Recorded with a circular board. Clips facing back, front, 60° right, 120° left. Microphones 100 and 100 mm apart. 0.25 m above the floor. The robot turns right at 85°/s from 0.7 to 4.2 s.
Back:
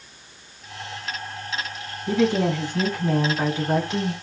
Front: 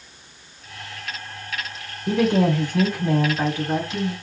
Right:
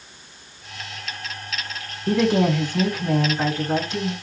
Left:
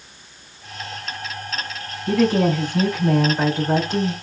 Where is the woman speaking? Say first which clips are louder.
Front 2 dB, left 1 dB; 10° right, 2.5 m; by 4.1 s 165° left, 2.5 m.